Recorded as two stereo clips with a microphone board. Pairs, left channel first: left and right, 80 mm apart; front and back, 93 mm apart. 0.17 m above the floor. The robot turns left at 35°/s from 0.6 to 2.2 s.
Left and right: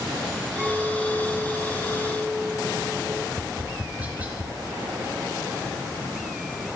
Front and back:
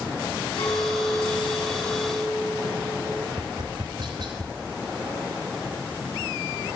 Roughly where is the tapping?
Behind.